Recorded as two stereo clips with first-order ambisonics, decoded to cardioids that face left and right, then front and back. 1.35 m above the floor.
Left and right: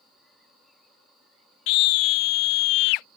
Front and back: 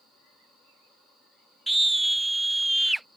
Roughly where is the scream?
Left.